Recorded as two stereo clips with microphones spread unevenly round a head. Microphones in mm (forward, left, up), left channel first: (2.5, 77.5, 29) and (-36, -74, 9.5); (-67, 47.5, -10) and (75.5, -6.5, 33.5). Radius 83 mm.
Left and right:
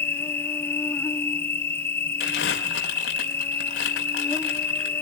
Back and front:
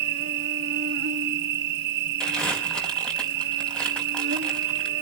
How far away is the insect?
About 2 m.